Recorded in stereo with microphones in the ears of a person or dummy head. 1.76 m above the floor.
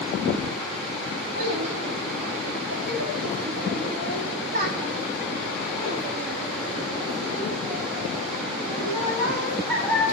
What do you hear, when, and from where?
1.4 s a child speaking: 65° right (ahead or behind), 3 m; by 10.0 s 5° right (ahead or behind), 3 m